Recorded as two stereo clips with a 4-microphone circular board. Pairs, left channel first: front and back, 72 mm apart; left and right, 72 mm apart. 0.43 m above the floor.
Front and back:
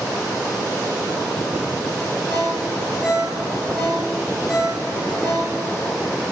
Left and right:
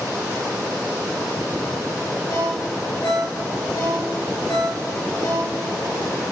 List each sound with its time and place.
2.3 s a ringtone: 80° left, 6.5 m